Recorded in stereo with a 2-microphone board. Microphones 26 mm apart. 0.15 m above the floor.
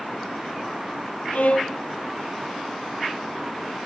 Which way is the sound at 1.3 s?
70° left (ahead or behind).